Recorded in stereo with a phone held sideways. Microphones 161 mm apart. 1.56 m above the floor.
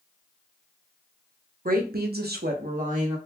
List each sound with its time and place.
1.6 s a woman speaking: 60° right (ahead or behind), 0.8 m; by 3.2 s 45° right (ahead or behind), 0.9 m